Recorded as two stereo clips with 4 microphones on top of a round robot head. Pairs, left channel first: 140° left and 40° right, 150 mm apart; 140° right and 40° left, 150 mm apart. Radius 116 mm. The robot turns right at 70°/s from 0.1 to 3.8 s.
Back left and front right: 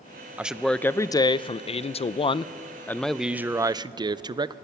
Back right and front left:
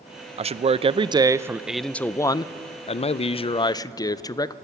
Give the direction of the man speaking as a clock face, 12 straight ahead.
11 o'clock.